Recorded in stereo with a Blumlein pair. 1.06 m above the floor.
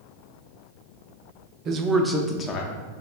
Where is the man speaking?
30° right, 0.6 m; by 2.8 s 40° left, 0.7 m.